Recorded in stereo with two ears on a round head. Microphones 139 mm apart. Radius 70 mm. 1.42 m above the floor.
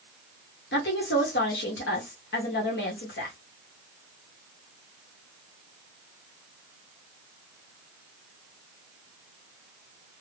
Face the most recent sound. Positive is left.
turn(degrees=75)  # may be behind; listen again after turning